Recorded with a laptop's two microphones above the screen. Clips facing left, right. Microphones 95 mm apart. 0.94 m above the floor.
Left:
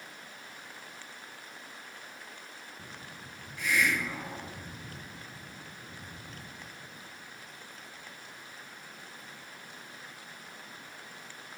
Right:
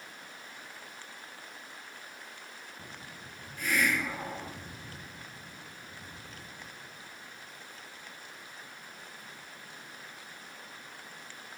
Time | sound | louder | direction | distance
3.6 | a hiss | even | 45° right (ahead or behind) | 1.5 m